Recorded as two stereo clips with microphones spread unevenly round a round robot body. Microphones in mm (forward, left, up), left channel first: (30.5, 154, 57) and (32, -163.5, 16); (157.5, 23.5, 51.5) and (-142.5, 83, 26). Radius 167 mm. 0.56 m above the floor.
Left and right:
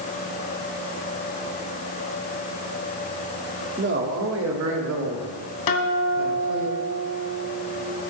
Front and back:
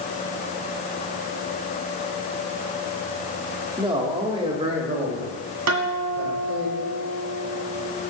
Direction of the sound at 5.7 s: 125° left.